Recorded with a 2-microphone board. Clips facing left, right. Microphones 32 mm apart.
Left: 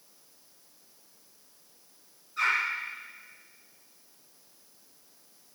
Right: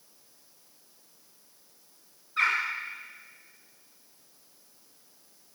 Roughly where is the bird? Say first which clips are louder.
Right 1 dB; right.